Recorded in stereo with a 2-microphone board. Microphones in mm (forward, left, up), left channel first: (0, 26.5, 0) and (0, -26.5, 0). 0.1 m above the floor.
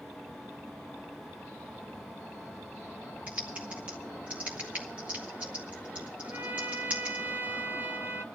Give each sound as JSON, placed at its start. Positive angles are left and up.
{"t": 3.3, "sound": "typing on a keyboard", "side_deg": -30, "distance_m": 1.5}
{"t": 6.2, "sound": "a trumpet", "side_deg": -40, "distance_m": 0.9}